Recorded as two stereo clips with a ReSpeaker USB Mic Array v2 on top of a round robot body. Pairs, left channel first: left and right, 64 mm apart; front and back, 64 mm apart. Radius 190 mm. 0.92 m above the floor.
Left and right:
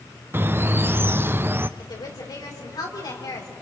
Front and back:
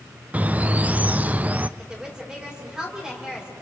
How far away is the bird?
About 0.6 m.